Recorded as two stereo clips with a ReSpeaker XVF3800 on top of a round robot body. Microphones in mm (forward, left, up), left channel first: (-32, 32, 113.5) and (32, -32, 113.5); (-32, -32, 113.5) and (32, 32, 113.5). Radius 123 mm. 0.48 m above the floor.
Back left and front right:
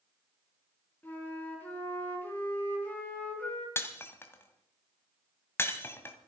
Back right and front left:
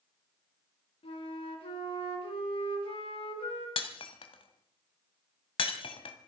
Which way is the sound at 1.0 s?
155° right.